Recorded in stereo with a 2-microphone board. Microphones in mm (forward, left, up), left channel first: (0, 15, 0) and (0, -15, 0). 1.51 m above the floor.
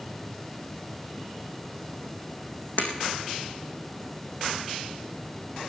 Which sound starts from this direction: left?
Breaking glass, at 2.8 s.